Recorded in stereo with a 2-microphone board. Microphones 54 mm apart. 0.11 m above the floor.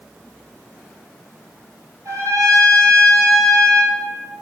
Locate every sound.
2.0 s a trumpet: 65° right (ahead or behind), 1.2 m